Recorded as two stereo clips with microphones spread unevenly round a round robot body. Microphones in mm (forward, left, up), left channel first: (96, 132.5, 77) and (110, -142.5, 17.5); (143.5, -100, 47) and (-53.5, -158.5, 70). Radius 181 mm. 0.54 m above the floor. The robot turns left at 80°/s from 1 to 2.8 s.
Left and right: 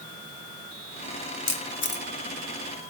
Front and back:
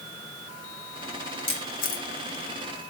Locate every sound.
1.5 s a camera shutter: 75° left, 1.9 m; by 2.0 s 25° left, 1.9 m